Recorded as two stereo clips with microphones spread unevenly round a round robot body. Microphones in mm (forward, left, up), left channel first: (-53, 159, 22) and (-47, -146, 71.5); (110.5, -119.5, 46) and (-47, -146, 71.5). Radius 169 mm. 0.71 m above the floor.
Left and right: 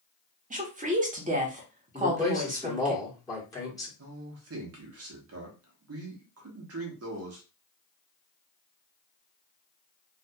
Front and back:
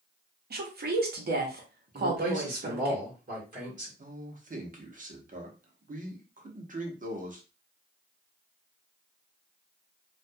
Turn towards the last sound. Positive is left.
turn(degrees=-130)